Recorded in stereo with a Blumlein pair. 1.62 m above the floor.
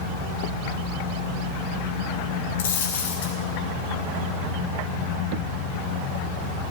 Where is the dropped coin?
55° left, 3 m.